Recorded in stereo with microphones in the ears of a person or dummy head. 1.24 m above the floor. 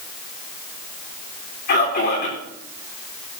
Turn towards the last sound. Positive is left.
turn(degrees=45)  # may be behind; listen again after turning